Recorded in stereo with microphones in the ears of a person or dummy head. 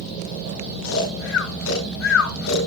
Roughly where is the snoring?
Left.